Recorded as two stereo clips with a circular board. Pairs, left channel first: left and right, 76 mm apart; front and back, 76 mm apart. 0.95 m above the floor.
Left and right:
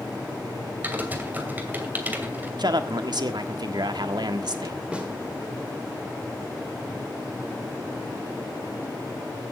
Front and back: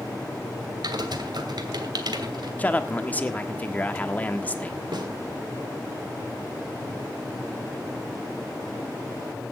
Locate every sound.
0.8 s typing on a keyboard: 155° right, 2.5 m
2.6 s a man speaking: 70° right, 1.5 m
4.9 s a snare drum: 165° right, 2.5 m